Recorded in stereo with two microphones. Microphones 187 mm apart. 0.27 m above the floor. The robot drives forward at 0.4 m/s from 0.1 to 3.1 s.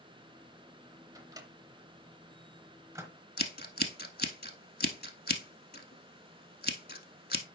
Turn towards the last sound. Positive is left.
turn(degrees=50)  # may be behind; listen again after turning